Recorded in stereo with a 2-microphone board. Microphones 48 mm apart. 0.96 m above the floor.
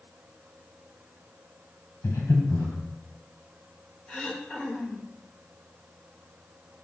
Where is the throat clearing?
25° left (ahead or behind), 1.4 m.